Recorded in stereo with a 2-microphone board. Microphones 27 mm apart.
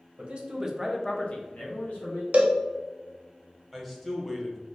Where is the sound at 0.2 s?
45° right (ahead or behind), 0.9 m; by 2.2 s 70° left (ahead or behind), 1.2 m.